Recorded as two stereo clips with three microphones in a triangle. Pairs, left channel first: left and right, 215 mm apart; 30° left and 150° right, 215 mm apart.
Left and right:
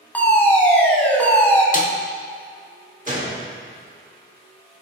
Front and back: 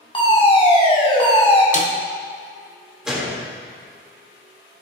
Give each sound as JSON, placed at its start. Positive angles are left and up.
{"t": 0.1, "sound": "a fire alarm", "azimuth_deg": 20, "distance_m": 1.7}
{"t": 1.7, "sound": "a snare drum", "azimuth_deg": 65, "distance_m": 0.9}
{"t": 3.1, "sound": "a gunshot", "azimuth_deg": -65, "distance_m": 1.4}